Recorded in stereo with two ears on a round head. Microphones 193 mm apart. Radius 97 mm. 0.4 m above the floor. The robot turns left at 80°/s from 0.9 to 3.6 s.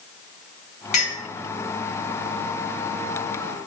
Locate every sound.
0.9 s a clink: 35° left (ahead or behind), 1.8 m; by 1.2 s 55° left (ahead or behind), 1.8 m